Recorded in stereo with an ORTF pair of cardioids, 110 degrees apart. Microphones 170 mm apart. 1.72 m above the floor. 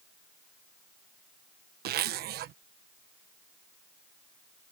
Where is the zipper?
70° right.